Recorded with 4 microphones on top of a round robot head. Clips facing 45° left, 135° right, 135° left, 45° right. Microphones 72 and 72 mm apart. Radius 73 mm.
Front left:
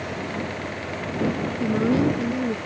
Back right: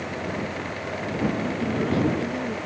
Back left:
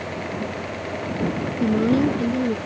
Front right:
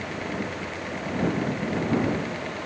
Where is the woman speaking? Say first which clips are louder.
Front left 4 dB, back left 10 dB; 115° left.